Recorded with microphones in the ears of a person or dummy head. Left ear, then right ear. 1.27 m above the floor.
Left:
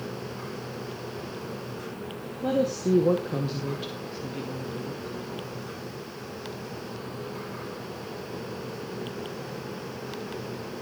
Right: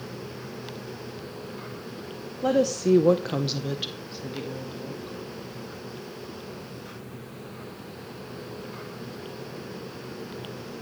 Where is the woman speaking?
55° right (ahead or behind), 1.4 m; by 5.2 s 5° right (ahead or behind), 3 m.